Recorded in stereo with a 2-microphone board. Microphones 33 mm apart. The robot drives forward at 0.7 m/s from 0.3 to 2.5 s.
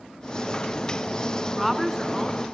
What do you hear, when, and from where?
1.4 s a woman speaking: centre (ahead or behind), 1.1 m